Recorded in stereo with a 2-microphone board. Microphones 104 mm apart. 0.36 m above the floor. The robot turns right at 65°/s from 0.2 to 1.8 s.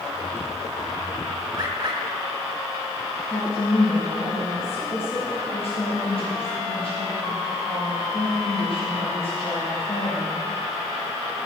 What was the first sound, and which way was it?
A bird, 35° right (ahead or behind).